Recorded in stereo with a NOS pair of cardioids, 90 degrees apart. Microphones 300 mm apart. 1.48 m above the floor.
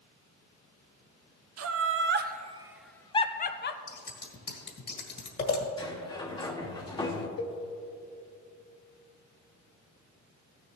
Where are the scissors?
35° left, 1.9 m.